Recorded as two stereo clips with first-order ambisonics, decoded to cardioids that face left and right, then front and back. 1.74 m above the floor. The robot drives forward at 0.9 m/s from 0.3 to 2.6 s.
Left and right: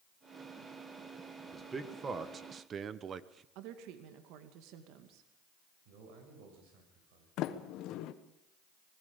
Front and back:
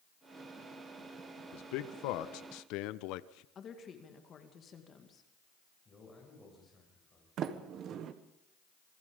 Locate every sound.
1.5 s a man speaking: 15° right, 2 m; by 3.5 s 25° right, 1.1 m
3.5 s a woman speaking: 65° right, 2 m
5.8 s a man speaking: 75° right, 7 m
7.4 s a sliding door: 130° left, 1.4 m